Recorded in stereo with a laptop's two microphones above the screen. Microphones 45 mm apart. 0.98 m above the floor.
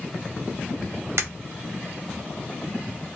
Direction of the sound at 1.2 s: 70° right (ahead or behind).